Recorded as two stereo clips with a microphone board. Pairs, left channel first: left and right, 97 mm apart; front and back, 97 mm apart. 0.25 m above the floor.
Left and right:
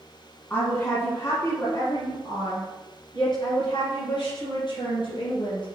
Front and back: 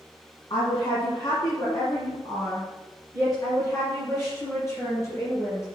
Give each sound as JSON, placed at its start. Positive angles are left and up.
{"t": 0.5, "sound": "a woman speaking", "azimuth_deg": 25, "distance_m": 1.8}